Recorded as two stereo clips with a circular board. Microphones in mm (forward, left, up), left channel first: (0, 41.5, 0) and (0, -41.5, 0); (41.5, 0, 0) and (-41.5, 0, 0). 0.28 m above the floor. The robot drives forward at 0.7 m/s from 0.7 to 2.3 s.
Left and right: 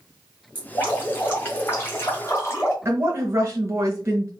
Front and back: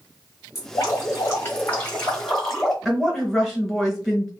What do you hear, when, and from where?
0.6 s dripping: 30° left, 1.9 m; by 2.8 s 80° left, 1.4 m
2.9 s a woman speaking: 90° right, 1.0 m